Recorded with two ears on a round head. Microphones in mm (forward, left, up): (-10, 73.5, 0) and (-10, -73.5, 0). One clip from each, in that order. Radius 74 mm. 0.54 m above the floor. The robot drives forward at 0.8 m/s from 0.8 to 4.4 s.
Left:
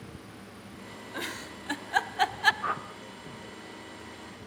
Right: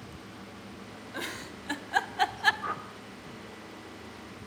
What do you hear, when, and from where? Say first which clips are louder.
1.1 s a giggle: left 1 dB; centre (ahead or behind), 1.5 m; by 2.5 s 5° left (ahead or behind), 0.6 m
2.6 s a whoosh: left 3 dB; 30° left (ahead or behind), 1.2 m; by 2.9 s 25° left (ahead or behind), 1.3 m